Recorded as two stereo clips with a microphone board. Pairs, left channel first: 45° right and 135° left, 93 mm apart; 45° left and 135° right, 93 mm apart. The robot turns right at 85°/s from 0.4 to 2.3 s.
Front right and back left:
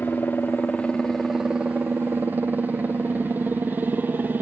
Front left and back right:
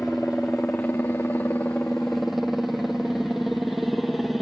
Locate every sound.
0.0 s a helicopter: 25° right; by 4.4 s 135° left